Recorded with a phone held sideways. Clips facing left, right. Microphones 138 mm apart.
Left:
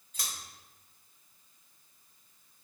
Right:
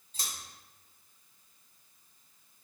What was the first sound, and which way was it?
Scissors, 30° right (ahead or behind).